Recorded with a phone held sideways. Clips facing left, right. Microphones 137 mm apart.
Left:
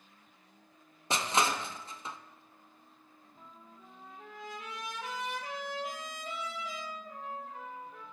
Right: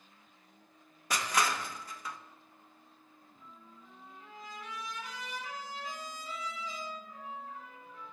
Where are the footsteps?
I don't hear footsteps.